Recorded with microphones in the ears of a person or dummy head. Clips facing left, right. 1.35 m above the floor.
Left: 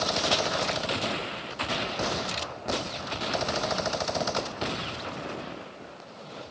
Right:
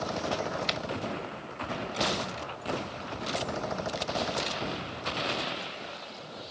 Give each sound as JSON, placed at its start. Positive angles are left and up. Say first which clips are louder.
{"t": 0.7, "sound": "a finger snap", "louder": "left 4 dB", "side_deg": -50, "distance_m": 0.8}